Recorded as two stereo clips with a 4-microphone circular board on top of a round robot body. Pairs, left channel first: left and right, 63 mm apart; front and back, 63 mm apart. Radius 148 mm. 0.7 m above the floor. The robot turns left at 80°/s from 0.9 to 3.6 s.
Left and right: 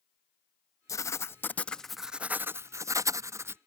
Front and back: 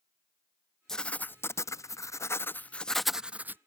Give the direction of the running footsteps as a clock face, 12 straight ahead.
I don't hear running footsteps.